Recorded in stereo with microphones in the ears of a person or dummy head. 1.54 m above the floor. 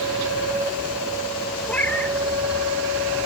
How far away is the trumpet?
No trumpet in this recording.